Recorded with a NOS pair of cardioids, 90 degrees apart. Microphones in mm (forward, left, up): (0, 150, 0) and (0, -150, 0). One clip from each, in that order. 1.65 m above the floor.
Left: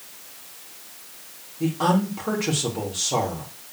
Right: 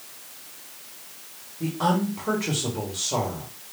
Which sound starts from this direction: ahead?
A woman speaking, at 1.6 s.